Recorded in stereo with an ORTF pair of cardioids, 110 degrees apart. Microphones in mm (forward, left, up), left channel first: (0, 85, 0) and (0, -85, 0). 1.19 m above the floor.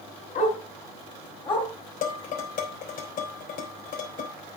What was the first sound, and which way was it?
A dog barking, 50° left.